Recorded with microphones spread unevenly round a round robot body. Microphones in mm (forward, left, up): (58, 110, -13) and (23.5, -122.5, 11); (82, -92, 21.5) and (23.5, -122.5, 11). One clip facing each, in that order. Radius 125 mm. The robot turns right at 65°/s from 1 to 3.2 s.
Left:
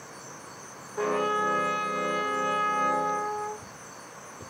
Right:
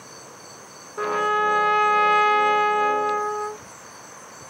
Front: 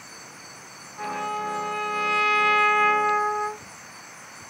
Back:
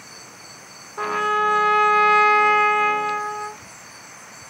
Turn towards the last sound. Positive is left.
turn(degrees=-35)